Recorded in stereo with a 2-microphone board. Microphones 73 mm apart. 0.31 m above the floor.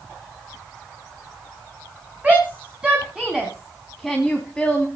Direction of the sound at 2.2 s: 20° right (ahead or behind).